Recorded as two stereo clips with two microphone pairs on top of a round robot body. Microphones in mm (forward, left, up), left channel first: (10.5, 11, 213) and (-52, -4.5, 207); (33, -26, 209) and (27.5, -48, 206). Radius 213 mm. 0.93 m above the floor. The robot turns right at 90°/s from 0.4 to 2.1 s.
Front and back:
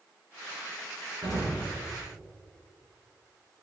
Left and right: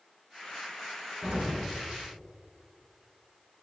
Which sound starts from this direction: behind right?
An explosion, at 1.2 s.